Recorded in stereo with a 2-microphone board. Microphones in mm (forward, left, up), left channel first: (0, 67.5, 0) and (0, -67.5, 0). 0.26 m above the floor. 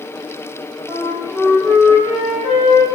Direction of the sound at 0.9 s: 5° left (ahead or behind).